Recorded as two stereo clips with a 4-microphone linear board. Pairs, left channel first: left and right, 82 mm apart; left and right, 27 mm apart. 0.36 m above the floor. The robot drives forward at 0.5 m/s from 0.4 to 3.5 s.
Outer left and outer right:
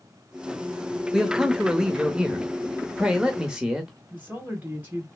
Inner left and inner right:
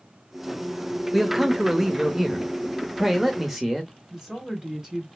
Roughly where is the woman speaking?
Right.